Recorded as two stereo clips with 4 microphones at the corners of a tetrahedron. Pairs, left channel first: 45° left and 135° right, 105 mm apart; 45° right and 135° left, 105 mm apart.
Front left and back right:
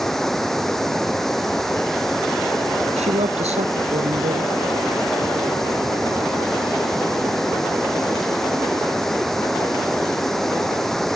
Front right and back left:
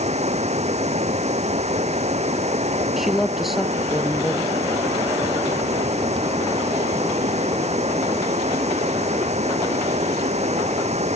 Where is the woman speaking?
135° right.